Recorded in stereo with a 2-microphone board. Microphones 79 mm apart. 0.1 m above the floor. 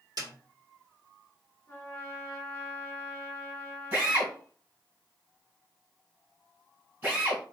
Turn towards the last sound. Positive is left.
turn(degrees=-30)  # may be behind; listen again after turning